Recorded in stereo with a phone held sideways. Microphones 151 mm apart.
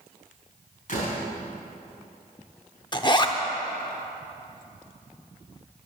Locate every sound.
0.9 s a door slam: 60° left (ahead or behind), 4.5 m
2.9 s a zipper: 30° left (ahead or behind), 0.7 m